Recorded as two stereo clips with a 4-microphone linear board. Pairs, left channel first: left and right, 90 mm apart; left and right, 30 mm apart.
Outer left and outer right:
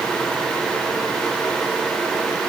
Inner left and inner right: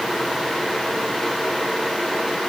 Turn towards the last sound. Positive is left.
No sound to turn to.